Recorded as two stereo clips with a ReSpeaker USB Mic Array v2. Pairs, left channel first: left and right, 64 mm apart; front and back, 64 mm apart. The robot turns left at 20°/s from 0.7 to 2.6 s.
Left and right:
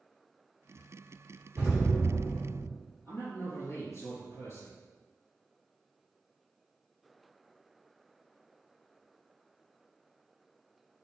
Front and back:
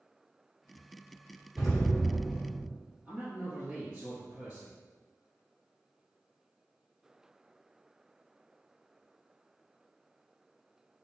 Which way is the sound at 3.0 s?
110° left.